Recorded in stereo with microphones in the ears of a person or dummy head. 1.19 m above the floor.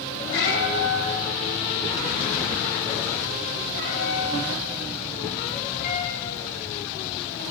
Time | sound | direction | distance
0.3 | a cat meowing | 65° left (ahead or behind) | 4.5 m